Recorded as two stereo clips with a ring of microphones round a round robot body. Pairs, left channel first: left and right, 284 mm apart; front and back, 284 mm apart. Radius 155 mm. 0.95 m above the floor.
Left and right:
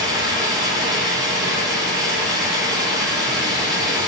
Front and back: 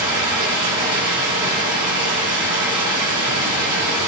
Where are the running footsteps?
No running footsteps in this recording.